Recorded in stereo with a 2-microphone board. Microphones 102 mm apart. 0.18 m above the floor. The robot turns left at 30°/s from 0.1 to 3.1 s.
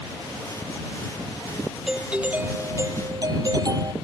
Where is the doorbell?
5° right; by 3.9 s 40° right.